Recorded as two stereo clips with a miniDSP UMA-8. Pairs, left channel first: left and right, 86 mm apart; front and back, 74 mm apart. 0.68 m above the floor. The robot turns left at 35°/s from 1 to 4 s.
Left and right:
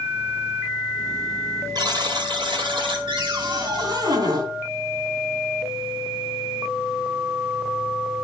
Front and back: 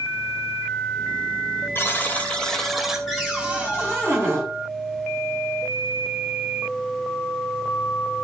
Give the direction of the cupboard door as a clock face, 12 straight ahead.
3 o'clock.